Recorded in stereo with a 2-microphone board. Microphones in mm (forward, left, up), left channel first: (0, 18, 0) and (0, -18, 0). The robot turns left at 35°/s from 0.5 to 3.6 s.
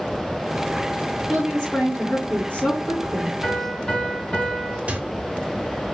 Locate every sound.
1.3 s a woman speaking: 165° left, 1.6 m; by 3.3 s 95° left, 1.6 m
3.4 s a piano: 40° left (ahead or behind), 1.8 m; by 4.8 s 35° left (ahead or behind), 1.8 m
4.9 s a microwave: 40° right (ahead or behind), 0.8 m